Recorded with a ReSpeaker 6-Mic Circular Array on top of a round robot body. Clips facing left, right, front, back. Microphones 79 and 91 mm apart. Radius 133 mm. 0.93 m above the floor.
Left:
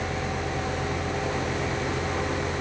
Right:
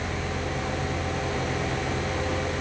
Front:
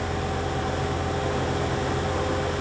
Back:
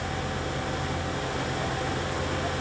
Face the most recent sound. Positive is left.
No sound to turn to.